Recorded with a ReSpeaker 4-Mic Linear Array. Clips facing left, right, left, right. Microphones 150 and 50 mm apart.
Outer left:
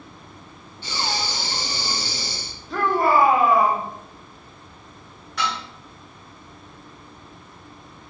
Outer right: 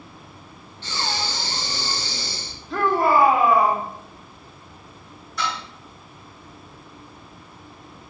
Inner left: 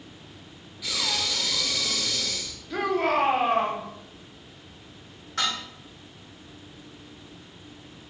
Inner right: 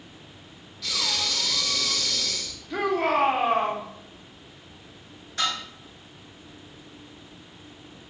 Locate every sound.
0.8 s breathing: 10° left (ahead or behind), 0.8 m
2.7 s a shout: centre (ahead or behind), 0.9 m
5.4 s dishes clattering: 85° left, 2.5 m